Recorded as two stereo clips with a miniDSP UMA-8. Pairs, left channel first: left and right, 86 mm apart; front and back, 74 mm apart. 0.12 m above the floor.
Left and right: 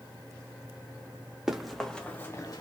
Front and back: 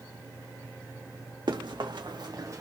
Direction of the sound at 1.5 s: 175° right.